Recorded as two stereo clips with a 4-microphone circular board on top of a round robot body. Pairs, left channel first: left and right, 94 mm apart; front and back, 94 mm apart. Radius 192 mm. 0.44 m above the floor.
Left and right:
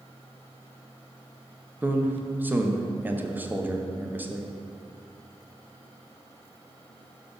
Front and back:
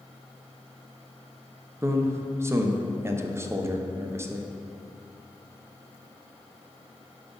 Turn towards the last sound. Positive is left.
turn(degrees=-145)